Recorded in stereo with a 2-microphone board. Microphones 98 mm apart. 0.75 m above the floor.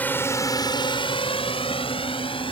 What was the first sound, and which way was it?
A drone, 20° left (ahead or behind).